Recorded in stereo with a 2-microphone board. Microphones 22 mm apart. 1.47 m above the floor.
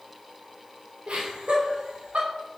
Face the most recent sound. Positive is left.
turn(degrees=-85)